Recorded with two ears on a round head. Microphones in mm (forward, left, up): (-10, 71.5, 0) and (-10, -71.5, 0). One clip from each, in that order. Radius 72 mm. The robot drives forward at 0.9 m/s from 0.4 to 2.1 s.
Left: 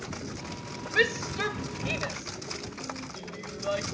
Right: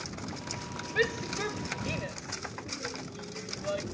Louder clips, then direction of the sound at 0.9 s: Left 4 dB; 35° left (ahead or behind).